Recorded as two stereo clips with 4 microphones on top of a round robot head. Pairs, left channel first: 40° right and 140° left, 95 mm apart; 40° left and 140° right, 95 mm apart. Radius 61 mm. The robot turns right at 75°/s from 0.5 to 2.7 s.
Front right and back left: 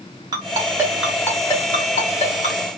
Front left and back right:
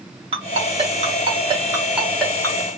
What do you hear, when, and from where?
0.3 s a ringtone: 170° right, 1.2 m; by 2.7 s 10° right, 1.2 m